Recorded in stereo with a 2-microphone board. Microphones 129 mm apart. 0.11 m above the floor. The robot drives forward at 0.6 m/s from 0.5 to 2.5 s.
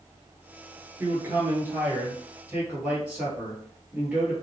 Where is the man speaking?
20° right (ahead or behind), 1.2 m; by 4.3 s 10° right (ahead or behind), 1.8 m.